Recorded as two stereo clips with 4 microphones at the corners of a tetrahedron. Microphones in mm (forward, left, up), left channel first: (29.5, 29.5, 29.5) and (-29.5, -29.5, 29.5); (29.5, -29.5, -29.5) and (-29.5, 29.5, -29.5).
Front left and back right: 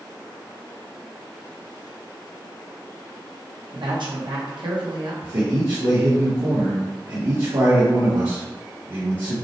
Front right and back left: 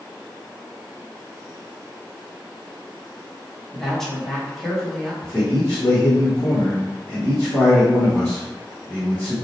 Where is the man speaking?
110° right, 1.5 m.